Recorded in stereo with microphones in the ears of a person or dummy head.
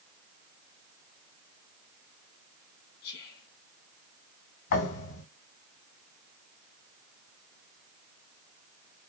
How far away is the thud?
About 3 m.